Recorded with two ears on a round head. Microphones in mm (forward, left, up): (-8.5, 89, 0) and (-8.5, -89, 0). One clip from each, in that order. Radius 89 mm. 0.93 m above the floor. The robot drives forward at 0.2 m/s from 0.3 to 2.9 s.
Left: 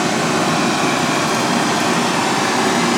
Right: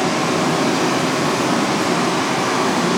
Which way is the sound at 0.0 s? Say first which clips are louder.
Left 1 dB; 40° left (ahead or behind).